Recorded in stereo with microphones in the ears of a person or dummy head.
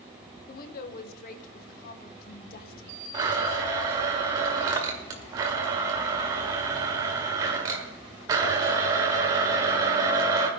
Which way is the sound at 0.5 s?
50° left (ahead or behind).